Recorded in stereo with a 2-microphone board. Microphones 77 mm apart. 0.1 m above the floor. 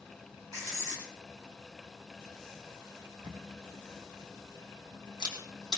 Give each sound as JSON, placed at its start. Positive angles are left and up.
{"t": 0.5, "sound": "writing", "side_deg": -50, "distance_m": 4.5}
{"t": 3.2, "sound": "a camera shutter", "side_deg": -70, "distance_m": 3.0}